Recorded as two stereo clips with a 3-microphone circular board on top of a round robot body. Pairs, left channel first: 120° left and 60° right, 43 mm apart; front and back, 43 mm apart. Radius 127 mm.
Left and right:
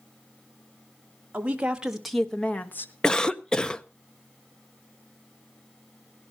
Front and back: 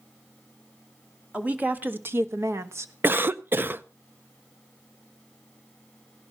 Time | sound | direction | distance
1.3 | a woman speaking | 115° right | 2.0 m
3.0 | a cough | 170° right | 0.8 m